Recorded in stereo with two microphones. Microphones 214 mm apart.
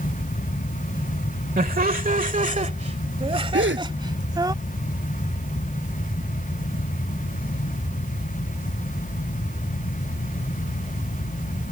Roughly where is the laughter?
Right.